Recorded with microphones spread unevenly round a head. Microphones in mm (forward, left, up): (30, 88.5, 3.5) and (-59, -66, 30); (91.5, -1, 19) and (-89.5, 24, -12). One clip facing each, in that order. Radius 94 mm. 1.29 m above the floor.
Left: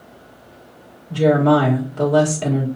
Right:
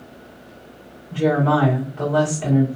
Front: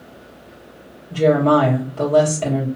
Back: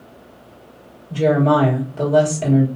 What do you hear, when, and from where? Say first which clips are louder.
1.1 s a woman speaking: left 4 dB, front 1 dB; 95° left, 1.8 m